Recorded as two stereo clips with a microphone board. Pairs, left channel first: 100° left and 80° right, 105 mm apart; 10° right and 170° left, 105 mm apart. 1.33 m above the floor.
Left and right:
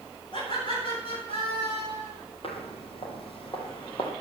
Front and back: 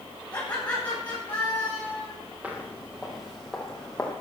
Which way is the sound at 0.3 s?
65° left.